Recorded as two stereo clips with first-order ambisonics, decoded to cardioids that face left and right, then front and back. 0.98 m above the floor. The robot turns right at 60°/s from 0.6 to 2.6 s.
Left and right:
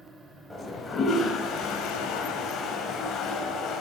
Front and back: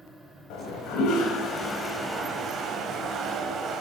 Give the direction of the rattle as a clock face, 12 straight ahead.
No rattle in this recording.